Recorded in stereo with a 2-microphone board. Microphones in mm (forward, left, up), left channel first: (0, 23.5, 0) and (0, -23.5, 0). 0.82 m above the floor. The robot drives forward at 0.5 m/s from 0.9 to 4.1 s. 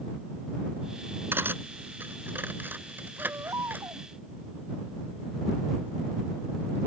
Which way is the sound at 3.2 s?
85° right.